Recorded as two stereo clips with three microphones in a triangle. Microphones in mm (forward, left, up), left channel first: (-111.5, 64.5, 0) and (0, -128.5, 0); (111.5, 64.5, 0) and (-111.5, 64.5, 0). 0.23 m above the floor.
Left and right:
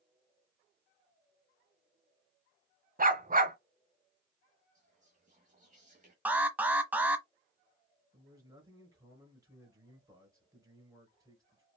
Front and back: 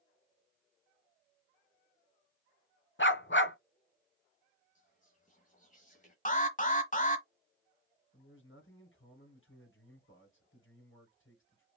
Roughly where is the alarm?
Ahead.